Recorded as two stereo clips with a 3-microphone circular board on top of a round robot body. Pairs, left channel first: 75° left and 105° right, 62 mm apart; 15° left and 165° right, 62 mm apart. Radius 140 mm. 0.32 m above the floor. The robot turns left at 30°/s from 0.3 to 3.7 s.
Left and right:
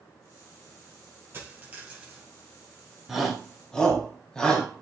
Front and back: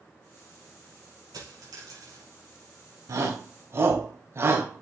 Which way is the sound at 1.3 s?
160° right.